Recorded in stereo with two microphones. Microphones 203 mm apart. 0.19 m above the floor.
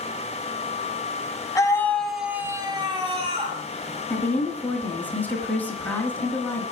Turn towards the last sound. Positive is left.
turn(degrees=10)  # may be behind; listen again after turning